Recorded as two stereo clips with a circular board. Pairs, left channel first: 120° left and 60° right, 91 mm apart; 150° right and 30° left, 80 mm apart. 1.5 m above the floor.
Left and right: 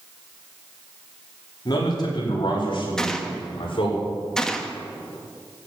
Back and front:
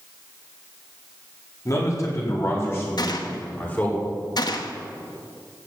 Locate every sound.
1.6 s a man speaking: 165° left, 4.5 m; by 4.0 s 145° left, 5.5 m
3.0 s a gunshot: 155° right, 1.2 m